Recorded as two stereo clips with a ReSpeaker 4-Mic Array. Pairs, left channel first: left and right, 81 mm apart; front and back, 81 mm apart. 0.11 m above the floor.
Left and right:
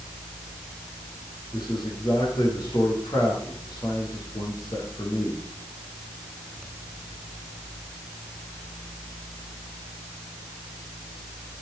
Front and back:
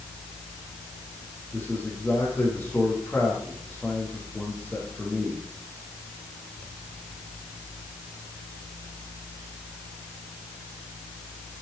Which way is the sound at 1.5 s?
65° left.